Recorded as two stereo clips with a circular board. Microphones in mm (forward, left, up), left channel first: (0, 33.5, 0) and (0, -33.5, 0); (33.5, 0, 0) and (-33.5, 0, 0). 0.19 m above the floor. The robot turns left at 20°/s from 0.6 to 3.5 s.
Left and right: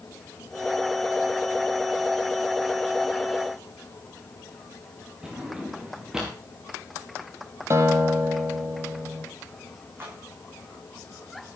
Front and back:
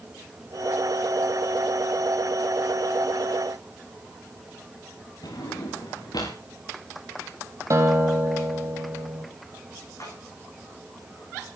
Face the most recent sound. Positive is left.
turn(degrees=-35)